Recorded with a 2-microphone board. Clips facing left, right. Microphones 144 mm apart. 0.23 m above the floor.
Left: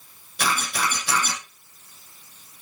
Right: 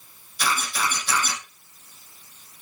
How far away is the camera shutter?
About 5.5 m.